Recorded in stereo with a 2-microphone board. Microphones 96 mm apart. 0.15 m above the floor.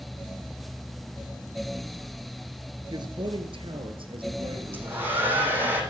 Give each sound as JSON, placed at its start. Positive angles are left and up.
{"t": 2.9, "sound": "a man speaking", "side_deg": -50, "distance_m": 2.0}
{"t": 4.7, "sound": "a hair dryer", "side_deg": -20, "distance_m": 6.5}